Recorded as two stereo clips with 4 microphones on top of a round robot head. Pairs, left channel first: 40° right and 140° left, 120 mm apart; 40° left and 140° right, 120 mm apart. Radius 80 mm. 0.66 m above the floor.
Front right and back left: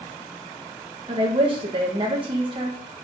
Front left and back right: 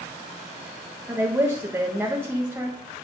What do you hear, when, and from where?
1.1 s a woman speaking: 155° left, 1.3 m